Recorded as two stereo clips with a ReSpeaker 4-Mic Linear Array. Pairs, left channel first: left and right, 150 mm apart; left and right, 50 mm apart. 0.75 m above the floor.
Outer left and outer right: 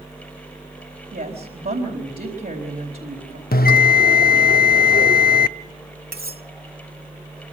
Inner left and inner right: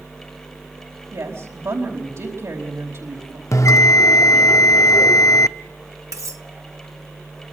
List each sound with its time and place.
1.1 s a woman speaking: 80° right, 4.5 m
3.5 s a bell: 80° left, 0.5 m
6.1 s cutlery clinking: 85° right, 1.5 m